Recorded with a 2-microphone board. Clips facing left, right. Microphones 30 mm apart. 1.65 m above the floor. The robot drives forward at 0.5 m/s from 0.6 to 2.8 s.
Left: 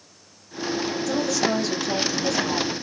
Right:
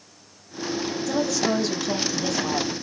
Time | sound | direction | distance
1.1 | a woman speaking | 5° right (ahead or behind) | 1.0 m